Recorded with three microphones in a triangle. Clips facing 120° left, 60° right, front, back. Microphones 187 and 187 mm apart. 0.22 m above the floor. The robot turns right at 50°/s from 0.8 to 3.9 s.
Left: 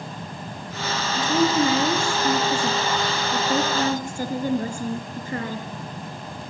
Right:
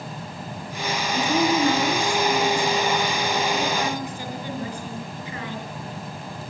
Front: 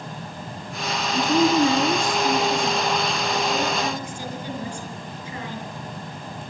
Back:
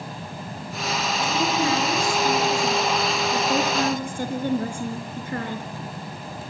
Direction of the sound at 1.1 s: 15° left.